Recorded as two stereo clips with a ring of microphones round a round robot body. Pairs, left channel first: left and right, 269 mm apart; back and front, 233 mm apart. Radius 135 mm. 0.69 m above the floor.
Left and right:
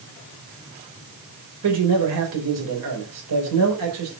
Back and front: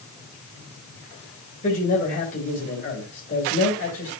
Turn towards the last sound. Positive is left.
turn(degrees=-120)